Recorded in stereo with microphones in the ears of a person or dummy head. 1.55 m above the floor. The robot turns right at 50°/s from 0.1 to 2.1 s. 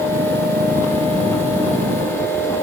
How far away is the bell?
I don't hear a bell.